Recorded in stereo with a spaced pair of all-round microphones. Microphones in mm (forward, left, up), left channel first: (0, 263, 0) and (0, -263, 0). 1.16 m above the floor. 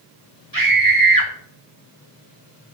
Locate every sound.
0.5 s a scream: 40° right (ahead or behind), 2.5 m